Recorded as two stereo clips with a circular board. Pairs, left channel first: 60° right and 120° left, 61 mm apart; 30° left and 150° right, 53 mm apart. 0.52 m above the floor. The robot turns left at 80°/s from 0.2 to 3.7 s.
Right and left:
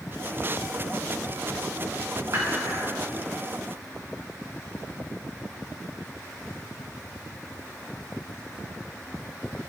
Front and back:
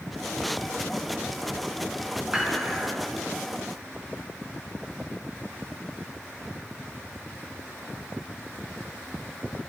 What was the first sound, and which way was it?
Dishes clattering, 145° left.